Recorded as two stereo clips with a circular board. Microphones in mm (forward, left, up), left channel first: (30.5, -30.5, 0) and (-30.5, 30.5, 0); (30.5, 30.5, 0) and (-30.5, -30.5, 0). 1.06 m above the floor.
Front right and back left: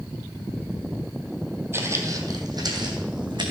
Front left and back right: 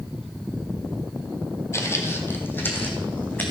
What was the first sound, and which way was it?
Footsteps, 85° left.